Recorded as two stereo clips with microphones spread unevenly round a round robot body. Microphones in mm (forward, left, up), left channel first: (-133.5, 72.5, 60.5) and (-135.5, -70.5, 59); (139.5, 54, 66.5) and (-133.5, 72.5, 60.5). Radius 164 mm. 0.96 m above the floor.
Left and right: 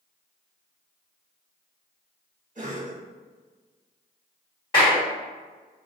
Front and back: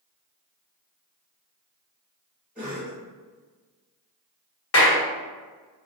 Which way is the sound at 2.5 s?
100° right.